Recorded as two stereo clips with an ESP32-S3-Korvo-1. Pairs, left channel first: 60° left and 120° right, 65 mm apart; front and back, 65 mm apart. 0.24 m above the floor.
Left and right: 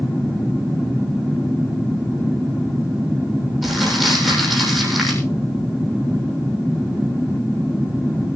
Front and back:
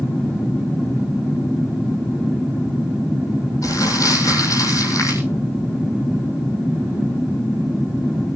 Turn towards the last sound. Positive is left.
turn(degrees=-30)